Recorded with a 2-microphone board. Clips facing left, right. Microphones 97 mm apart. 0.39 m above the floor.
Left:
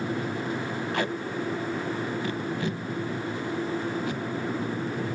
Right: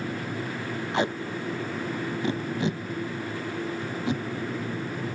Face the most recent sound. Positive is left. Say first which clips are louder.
# right 3 dB
turn(degrees=-20)  # may be behind; listen again after turning